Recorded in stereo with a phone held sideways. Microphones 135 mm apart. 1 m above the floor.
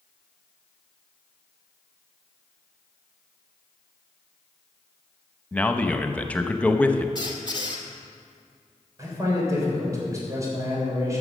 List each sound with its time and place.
5.5 s a man speaking: 10° left (ahead or behind), 0.8 m
7.2 s a squeak: 35° left (ahead or behind), 1.5 m
9.0 s a man speaking: 25° right (ahead or behind), 3.5 m